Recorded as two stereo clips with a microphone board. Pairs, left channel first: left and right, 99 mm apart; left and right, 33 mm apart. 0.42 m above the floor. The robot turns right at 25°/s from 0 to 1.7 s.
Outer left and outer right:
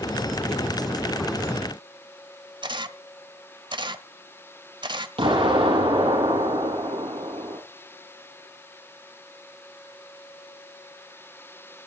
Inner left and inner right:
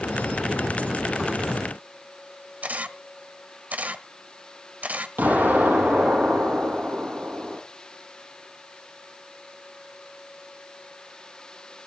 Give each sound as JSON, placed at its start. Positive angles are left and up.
{"t": 2.6, "sound": "a camera shutter", "side_deg": -50, "distance_m": 1.0}
{"t": 5.2, "sound": "an explosion", "side_deg": -70, "distance_m": 10.0}